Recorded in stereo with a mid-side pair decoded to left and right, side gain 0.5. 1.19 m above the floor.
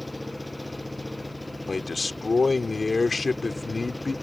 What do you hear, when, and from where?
0.0 s an engine running: 5° left
1.7 s a man speaking: 25° left